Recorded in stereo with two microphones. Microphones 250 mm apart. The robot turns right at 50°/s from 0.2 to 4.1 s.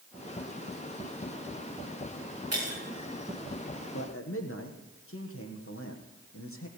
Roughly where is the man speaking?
Left.